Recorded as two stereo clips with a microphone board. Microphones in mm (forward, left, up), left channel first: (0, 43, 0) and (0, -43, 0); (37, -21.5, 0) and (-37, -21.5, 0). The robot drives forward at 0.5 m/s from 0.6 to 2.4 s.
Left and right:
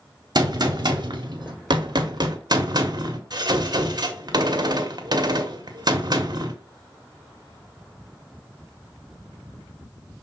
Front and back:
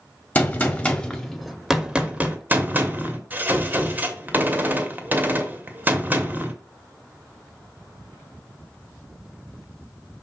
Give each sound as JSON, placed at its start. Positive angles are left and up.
{"t": 0.3, "sound": "a gunshot", "azimuth_deg": -60, "distance_m": 1.1}